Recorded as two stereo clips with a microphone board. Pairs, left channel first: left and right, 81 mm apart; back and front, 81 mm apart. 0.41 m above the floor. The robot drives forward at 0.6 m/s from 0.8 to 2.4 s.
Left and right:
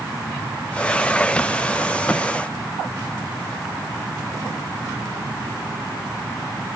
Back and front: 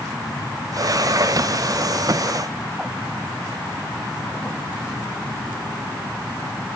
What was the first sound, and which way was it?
Only background noise.